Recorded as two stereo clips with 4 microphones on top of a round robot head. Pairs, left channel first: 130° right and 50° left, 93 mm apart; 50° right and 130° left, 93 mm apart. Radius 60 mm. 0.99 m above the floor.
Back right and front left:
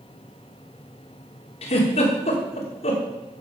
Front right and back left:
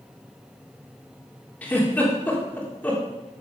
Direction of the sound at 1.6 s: 125° right.